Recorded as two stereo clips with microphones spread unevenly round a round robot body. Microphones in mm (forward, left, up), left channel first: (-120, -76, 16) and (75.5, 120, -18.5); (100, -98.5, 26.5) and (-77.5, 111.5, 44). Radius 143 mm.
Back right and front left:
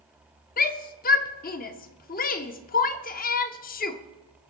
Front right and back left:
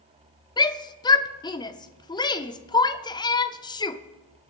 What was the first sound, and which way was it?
A shout, 100° right.